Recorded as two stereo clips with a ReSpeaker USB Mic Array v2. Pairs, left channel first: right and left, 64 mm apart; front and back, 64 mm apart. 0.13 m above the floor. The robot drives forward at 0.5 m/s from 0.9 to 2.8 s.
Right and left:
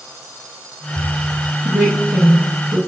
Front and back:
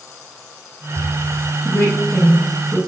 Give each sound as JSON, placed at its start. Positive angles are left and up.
{"t": 1.6, "sound": "a woman speaking", "azimuth_deg": 30, "distance_m": 1.3}